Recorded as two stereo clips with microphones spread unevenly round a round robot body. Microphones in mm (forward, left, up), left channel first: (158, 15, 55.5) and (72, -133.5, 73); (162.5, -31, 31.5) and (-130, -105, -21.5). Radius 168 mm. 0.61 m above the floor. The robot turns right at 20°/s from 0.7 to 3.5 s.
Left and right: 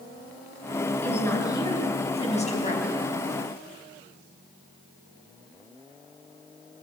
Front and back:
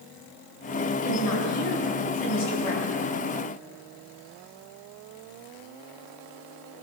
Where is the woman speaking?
20° right, 6.5 m; by 2.9 s 20° left, 6.5 m.